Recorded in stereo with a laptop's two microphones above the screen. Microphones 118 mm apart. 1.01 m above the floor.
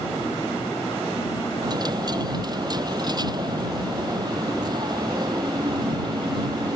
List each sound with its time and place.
1.6 s a dropped coin: 35° right (ahead or behind)